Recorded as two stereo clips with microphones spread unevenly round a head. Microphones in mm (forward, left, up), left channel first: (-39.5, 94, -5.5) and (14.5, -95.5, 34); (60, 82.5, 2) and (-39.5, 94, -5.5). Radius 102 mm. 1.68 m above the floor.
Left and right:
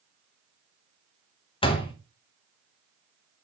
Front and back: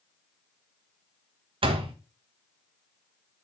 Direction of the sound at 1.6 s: 175° left.